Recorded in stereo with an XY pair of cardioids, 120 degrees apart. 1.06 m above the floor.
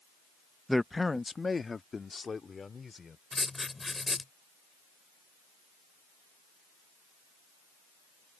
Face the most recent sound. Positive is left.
turn(degrees=15)